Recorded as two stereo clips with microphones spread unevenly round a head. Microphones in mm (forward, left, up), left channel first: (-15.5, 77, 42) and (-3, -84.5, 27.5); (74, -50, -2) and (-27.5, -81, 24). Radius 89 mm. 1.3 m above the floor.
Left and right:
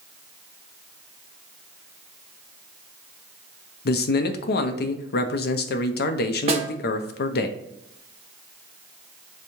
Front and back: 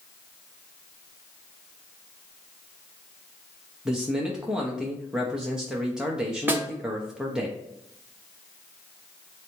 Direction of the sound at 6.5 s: 130° right.